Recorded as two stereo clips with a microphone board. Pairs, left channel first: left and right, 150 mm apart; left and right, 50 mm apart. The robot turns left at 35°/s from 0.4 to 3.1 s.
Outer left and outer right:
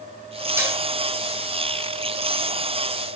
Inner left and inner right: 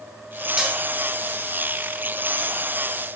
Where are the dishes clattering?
15° right (ahead or behind), 5.5 m; by 0.8 s 10° right (ahead or behind), 5.5 m.